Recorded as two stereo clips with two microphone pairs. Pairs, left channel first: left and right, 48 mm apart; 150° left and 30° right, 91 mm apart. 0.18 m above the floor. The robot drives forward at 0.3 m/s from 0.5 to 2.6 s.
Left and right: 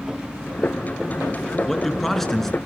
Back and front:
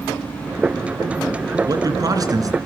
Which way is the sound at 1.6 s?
5° left.